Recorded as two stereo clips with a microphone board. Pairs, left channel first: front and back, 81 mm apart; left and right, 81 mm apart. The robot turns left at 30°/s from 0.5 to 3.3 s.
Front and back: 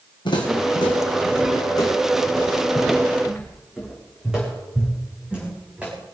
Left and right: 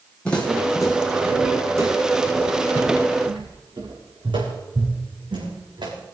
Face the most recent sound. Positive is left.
turn(degrees=-105)